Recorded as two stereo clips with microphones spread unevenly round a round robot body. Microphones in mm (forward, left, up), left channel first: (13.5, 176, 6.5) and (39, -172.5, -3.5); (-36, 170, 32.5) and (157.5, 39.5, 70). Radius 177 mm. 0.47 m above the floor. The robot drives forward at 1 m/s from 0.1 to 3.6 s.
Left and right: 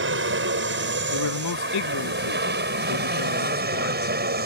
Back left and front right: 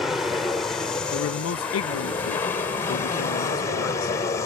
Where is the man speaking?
135° left; by 4.1 s 150° left.